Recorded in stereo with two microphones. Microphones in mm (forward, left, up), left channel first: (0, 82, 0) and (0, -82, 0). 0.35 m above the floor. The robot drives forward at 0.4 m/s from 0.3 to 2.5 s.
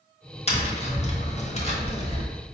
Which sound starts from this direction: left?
Tapping, at 0.5 s.